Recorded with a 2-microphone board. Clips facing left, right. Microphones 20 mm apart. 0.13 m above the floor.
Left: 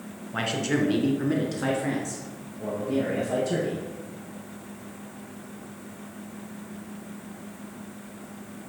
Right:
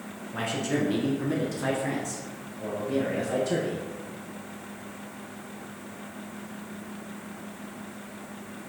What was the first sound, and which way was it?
A man speaking, 35° left (ahead or behind).